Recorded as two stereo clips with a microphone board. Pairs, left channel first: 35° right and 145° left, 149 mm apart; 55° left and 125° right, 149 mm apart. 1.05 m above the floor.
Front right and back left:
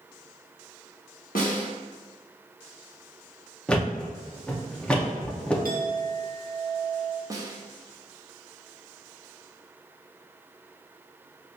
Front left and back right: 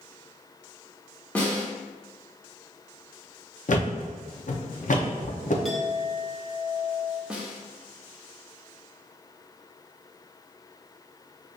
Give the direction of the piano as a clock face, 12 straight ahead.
I don't hear a piano.